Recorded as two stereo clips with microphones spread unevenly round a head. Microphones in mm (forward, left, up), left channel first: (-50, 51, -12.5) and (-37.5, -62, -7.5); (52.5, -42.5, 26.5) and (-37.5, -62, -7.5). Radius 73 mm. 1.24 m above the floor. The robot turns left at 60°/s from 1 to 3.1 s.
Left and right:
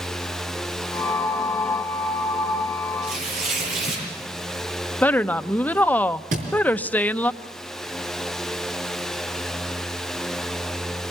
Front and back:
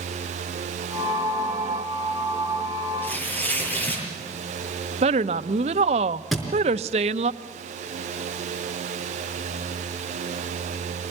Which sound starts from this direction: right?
A thud, at 6.3 s.